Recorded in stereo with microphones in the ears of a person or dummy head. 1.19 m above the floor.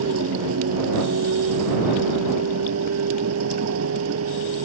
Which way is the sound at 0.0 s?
80° right.